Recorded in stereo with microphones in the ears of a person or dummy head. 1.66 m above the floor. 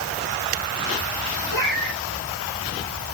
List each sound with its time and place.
1.5 s a cat meowing: 55° left (ahead or behind), 6.5 m